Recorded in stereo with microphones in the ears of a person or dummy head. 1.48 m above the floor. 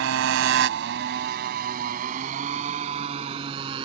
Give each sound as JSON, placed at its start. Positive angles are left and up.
{"t": 0.0, "sound": "a motorcycle", "side_deg": -75}